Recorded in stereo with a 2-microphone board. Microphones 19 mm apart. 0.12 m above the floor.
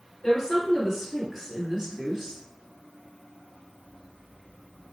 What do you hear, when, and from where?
0.2 s a woman speaking: 25° left (ahead or behind), 1.4 m; by 2.4 s 35° right (ahead or behind), 1.5 m